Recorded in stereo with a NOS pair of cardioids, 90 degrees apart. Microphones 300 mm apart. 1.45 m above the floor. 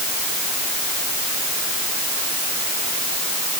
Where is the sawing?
No sawing in this recording.